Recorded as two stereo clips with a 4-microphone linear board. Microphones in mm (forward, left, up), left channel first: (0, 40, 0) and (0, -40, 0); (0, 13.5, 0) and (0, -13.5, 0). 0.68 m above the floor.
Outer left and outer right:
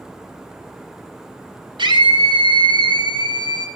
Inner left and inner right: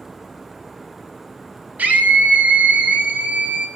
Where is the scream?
75° right (ahead or behind), 5 m; by 3.7 s 60° right (ahead or behind), 5.5 m.